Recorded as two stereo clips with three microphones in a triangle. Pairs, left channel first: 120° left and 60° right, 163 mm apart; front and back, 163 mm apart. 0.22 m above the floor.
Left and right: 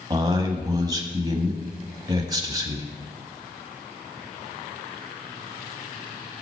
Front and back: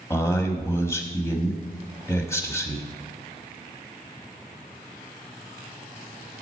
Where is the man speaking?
45° right, 1.0 m.